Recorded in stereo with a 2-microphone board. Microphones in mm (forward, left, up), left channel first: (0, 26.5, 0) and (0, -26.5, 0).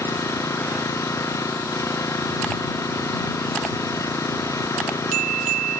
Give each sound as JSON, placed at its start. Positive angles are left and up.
{"t": 0.0, "sound": "an engine running", "side_deg": 85}